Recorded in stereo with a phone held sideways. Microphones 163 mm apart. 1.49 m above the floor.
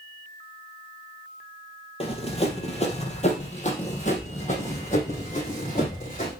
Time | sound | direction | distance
2.0 | running footsteps | 35° left (ahead or behind) | 2.5 m